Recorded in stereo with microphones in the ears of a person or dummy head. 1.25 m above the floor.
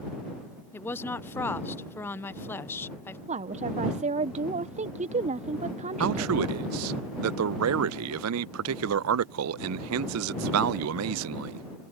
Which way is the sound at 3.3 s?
30° right (ahead or behind).